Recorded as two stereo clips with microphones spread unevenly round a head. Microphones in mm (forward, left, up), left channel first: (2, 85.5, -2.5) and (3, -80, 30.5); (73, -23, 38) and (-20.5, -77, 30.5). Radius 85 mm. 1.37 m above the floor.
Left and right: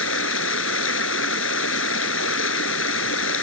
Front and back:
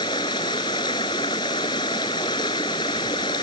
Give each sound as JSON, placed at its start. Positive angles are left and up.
{"t": 0.0, "sound": "running water", "azimuth_deg": 95}